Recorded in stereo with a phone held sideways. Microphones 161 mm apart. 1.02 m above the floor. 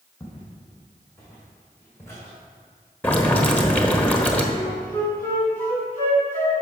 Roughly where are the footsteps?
Left.